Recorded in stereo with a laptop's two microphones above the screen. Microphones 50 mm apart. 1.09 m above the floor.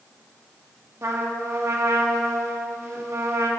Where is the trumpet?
70° right (ahead or behind), 1.0 m.